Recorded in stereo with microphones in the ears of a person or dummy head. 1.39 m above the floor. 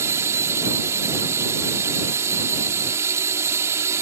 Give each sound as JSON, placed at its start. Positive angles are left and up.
{"t": 0.0, "sound": "a drone", "side_deg": -20}